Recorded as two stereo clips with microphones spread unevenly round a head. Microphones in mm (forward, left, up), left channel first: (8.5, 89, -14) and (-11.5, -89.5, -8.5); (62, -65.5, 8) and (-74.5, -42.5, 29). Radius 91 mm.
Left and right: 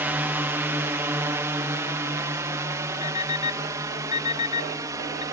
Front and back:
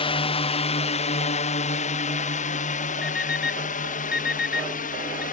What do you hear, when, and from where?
0.0 s a drone: 20° right; by 5.3 s 25° right
3.0 s an alarm clock: 25° left